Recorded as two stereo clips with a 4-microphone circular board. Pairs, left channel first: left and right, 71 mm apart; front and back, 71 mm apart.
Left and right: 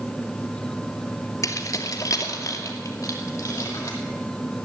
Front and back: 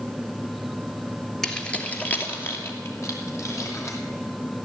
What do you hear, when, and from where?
1.4 s keys jangling: 80° left, 1.4 m; by 4.0 s 40° left, 3.5 m